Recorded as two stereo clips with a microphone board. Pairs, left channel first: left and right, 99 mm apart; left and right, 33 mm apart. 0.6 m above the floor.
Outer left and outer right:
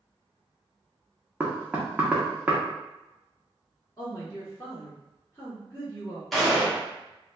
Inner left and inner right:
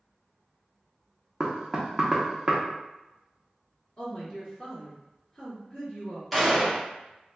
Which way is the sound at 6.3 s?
5° left (ahead or behind).